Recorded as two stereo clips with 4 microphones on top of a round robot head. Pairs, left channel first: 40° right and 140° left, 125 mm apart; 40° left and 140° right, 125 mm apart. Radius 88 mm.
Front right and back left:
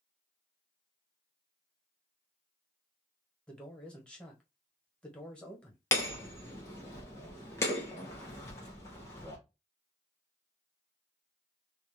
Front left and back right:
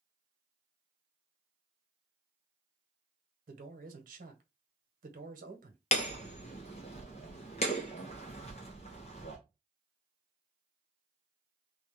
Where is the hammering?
25° left, 0.6 m.